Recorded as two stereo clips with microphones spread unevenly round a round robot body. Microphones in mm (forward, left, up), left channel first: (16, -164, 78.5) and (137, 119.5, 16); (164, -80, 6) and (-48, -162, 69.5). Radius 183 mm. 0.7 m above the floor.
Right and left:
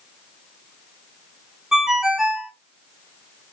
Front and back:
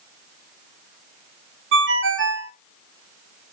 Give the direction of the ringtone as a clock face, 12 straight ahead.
7 o'clock.